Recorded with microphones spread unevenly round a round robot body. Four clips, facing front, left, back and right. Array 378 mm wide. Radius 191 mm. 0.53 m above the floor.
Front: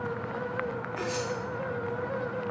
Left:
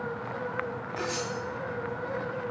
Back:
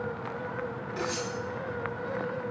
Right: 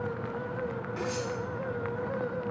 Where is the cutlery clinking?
140° right, 2.5 m.